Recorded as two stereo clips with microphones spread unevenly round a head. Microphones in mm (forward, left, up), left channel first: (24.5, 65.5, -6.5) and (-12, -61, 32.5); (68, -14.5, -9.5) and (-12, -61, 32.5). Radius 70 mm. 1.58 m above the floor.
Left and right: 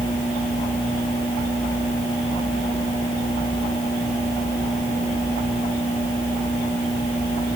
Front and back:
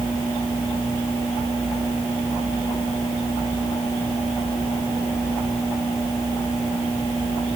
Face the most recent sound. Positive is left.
No sound to turn to.